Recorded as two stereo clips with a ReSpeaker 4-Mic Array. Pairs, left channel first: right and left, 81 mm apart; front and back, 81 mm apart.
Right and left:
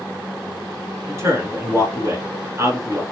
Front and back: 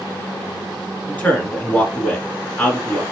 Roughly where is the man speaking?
Ahead left.